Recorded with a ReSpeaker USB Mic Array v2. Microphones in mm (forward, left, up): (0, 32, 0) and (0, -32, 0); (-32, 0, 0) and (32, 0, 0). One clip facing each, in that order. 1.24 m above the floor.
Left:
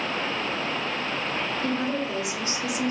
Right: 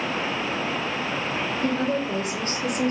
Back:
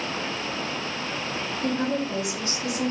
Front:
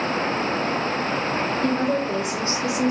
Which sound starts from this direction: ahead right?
A woman speaking, at 1.6 s.